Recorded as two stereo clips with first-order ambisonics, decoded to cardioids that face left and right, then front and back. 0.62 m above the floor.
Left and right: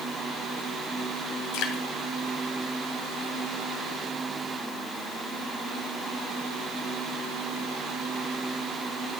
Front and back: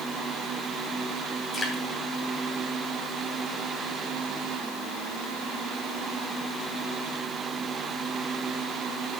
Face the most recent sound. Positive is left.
turn(degrees=80)